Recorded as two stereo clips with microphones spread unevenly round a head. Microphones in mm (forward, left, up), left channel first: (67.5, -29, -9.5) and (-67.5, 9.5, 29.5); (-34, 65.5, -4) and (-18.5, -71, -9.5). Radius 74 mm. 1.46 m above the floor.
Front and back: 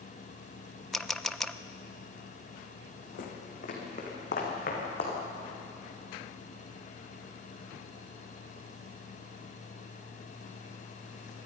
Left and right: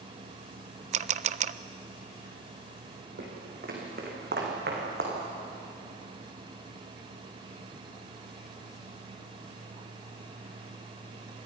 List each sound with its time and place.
0.9 s a camera shutter: 115° right, 0.6 m
3.2 s footsteps: 55° right, 4.5 m; by 5.1 s 60° right, 6 m